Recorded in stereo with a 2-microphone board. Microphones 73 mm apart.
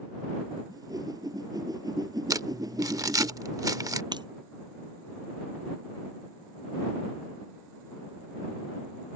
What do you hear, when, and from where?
0.7 s a whoosh: 55° right (ahead or behind)
2.3 s crumpling: 50° right (ahead or behind)
4.1 s breaking glass: 70° right (ahead or behind)